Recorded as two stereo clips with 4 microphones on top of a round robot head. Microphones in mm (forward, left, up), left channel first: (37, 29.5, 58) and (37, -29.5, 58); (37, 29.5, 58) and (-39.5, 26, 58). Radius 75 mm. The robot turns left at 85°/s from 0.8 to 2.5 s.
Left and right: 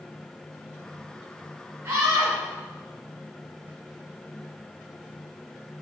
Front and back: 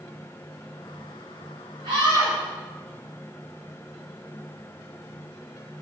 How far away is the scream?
About 6.5 m.